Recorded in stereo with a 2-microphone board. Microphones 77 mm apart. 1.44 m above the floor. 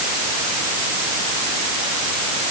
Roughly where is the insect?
I don't hear an insect.